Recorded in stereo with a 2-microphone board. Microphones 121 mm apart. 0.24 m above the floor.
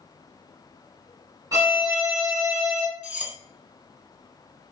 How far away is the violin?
About 0.9 m.